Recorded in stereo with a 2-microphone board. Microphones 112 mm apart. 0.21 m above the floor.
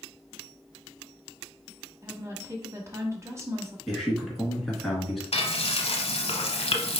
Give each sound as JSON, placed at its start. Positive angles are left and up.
{"t": 2.0, "sound": "a woman speaking", "side_deg": -25, "distance_m": 1.0}
{"t": 3.9, "sound": "a man speaking", "side_deg": 0, "distance_m": 1.9}
{"t": 5.3, "sound": "frying", "side_deg": 60, "distance_m": 0.8}